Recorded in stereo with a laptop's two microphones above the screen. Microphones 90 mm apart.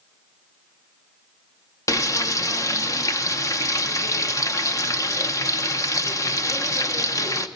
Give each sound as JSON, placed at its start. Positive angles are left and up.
{"t": 1.9, "sound": "frying", "side_deg": 35, "distance_m": 0.8}